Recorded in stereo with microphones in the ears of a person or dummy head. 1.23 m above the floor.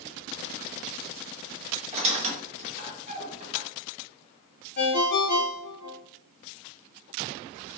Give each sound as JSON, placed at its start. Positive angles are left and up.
{"t": 1.9, "sound": "a squeak", "side_deg": -35, "distance_m": 1.1}
{"t": 4.8, "sound": "a ringtone", "side_deg": 45, "distance_m": 0.5}